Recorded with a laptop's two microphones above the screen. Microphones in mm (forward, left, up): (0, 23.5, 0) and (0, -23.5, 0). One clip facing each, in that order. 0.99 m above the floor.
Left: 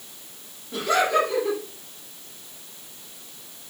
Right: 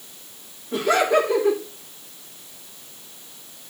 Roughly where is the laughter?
Right.